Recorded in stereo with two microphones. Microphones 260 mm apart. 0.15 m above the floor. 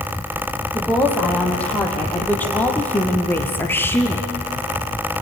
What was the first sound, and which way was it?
A woman speaking, 5° left (ahead or behind).